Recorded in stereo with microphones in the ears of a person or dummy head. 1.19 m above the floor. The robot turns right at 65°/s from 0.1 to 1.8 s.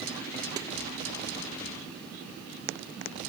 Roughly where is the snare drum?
Centre.